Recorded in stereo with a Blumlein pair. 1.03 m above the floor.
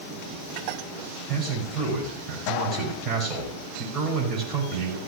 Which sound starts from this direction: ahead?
A man speaking, at 1.3 s.